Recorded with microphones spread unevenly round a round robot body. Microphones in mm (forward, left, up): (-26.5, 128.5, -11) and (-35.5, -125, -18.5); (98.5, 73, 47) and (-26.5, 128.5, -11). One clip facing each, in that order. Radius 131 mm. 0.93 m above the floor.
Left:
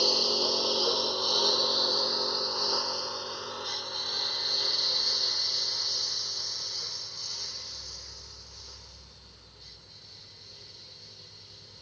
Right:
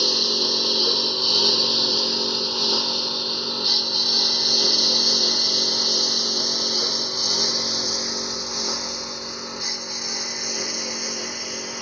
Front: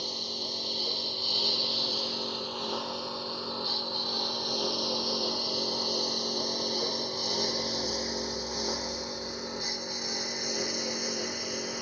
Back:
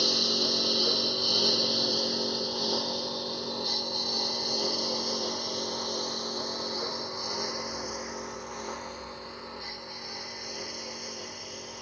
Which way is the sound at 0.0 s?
150° right.